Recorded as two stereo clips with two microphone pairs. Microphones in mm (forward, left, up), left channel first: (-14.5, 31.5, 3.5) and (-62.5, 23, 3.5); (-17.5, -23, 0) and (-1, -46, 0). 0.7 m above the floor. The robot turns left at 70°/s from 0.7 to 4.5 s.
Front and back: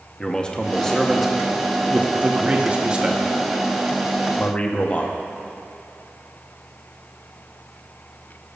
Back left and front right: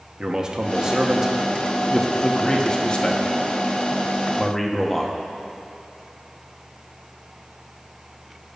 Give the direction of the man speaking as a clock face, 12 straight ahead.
2 o'clock.